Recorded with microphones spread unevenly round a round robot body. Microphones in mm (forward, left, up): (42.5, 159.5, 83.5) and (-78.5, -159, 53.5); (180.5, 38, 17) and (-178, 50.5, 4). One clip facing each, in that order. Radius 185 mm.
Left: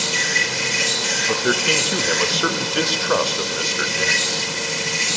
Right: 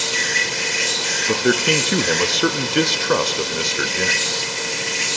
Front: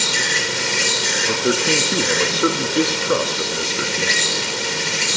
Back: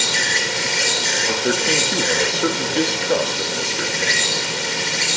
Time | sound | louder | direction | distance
0.0 | an insect | even, even | 70° left | 4 m
1.3 | a man speaking | right 4 dB, front 2 dB | 75° right | 0.7 m